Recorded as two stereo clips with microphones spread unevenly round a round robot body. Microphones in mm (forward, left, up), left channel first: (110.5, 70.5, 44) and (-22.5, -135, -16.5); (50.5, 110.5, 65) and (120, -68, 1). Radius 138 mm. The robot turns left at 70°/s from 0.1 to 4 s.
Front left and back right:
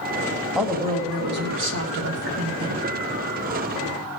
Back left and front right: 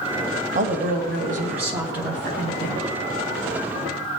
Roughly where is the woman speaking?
Ahead right.